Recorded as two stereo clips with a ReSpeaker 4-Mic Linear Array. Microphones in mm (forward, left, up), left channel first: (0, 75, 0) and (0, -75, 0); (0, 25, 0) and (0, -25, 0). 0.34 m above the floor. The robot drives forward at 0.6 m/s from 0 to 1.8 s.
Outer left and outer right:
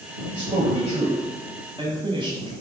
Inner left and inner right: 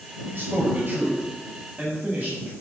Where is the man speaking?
50° right (ahead or behind), 1.4 m; by 2.5 s 35° right (ahead or behind), 1.8 m.